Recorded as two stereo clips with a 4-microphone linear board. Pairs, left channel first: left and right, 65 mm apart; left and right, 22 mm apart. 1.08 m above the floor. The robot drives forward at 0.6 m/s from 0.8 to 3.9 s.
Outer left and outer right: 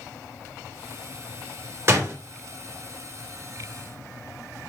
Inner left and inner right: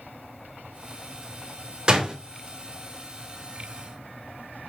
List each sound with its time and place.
1.9 s a door slam: 45° right (ahead or behind), 3.5 m